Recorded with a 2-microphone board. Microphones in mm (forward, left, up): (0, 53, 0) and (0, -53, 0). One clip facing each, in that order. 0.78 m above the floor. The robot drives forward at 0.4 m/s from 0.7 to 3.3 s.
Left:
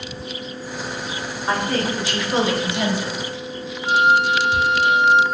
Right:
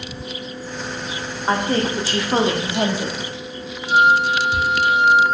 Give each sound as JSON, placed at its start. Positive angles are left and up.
{"t": 1.5, "sound": "a woman speaking", "side_deg": -30, "distance_m": 1.8}
{"t": 3.9, "sound": "a flute", "side_deg": 65, "distance_m": 2.0}